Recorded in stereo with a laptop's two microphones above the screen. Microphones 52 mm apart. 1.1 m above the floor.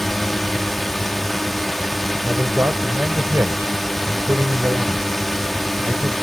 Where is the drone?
5° left (ahead or behind).